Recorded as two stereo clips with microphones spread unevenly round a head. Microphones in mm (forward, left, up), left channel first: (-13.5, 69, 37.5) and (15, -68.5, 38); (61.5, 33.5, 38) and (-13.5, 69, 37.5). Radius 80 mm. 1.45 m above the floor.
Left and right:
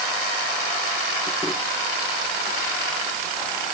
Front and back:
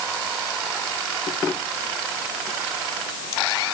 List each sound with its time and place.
Only background noise.